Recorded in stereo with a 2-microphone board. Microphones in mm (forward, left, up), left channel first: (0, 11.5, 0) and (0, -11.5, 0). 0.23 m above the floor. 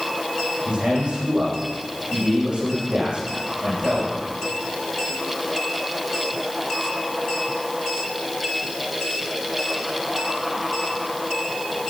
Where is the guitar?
I don't hear a guitar.